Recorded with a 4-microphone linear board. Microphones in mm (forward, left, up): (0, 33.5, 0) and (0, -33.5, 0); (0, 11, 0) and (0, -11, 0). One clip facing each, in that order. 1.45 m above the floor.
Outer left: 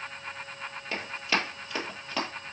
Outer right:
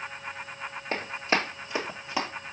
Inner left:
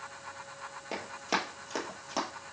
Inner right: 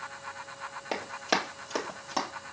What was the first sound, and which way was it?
Running footsteps, 35° right (ahead or behind).